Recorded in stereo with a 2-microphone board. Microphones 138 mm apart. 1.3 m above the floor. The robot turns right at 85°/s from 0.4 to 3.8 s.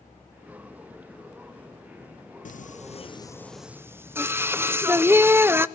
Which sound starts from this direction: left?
Singing, at 2.5 s.